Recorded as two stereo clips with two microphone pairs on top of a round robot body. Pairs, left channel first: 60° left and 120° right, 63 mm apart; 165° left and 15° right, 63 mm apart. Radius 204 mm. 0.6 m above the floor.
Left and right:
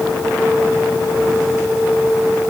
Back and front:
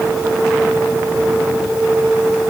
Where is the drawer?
No drawer in this recording.